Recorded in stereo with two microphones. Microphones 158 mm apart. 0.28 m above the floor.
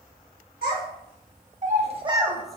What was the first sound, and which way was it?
A child speaking, 70° right (ahead or behind).